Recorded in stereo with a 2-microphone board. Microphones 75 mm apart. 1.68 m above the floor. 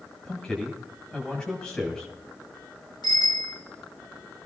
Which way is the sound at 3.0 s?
75° left (ahead or behind).